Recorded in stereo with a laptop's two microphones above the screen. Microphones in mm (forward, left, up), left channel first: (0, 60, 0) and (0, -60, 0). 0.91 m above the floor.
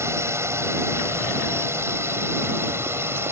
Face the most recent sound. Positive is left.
turn(degrees=-20)  # may be behind; listen again after turning